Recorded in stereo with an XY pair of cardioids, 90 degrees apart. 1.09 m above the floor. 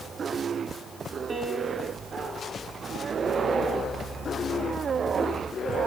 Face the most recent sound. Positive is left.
turn(degrees=-40)